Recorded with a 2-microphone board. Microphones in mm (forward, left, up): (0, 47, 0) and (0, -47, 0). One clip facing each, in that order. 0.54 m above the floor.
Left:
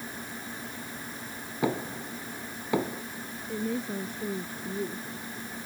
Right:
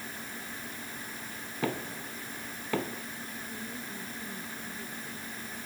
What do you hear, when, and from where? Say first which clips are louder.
1.6 s knocking: left 4 dB; 15° left (ahead or behind)
3.5 s a woman speaking: left 15 dB; 80° left